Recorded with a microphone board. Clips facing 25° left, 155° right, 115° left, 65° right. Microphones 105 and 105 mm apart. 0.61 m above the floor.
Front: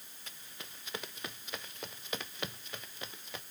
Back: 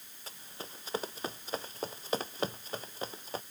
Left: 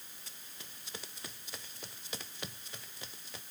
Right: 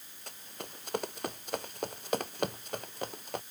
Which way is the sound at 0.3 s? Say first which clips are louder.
Back 6 dB, right 13 dB; 100° right.